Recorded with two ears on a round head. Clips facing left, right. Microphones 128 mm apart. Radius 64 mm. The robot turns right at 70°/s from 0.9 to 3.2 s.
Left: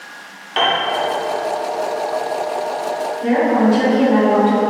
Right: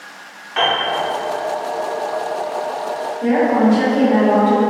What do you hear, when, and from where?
0.6 s a piano: 35° left (ahead or behind), 0.7 m
3.2 s a woman speaking: 20° right (ahead or behind), 1.0 m